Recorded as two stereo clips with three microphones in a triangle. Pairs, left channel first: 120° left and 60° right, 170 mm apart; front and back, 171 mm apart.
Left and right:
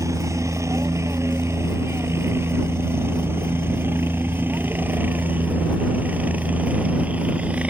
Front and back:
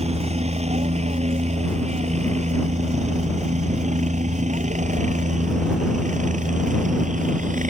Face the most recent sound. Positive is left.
turn(degrees=-140)